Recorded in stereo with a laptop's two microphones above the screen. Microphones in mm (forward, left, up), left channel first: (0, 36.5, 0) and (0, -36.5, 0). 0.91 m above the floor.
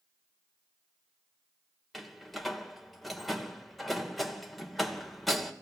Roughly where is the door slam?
Centre.